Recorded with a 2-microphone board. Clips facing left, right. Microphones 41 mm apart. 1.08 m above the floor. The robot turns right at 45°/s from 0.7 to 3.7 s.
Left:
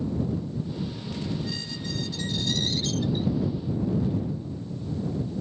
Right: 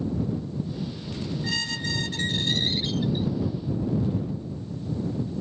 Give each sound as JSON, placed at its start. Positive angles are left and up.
{"t": 1.4, "sound": "a squeak", "azimuth_deg": -85}